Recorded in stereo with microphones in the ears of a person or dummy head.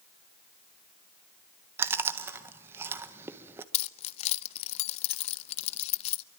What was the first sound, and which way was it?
Chewing, 10° right (ahead or behind).